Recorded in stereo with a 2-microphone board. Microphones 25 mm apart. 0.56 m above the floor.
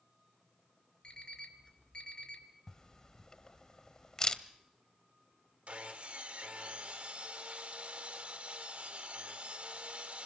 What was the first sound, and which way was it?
An alarm clock, 40° left (ahead or behind).